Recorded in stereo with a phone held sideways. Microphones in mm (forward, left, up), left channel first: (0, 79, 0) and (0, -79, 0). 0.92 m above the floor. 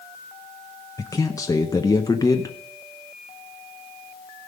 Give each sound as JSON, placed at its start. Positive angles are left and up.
{"t": 1.0, "sound": "a man speaking", "side_deg": 20, "distance_m": 0.7}